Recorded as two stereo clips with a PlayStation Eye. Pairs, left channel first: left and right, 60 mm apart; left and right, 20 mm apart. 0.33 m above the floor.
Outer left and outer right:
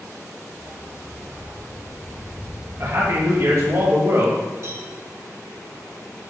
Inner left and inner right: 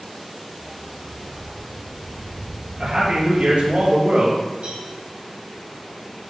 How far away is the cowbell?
About 6 m.